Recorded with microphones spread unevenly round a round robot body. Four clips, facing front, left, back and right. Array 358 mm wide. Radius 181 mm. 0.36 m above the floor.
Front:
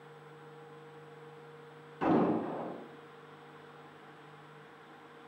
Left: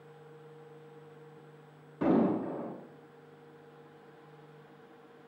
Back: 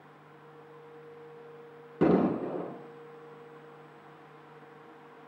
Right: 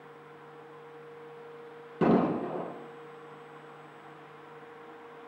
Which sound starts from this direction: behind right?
An explosion, at 2.0 s.